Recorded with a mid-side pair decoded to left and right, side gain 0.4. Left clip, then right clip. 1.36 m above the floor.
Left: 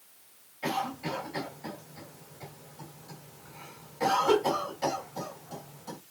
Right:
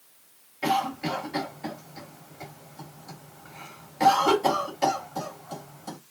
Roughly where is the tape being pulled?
No tape being pulled in this recording.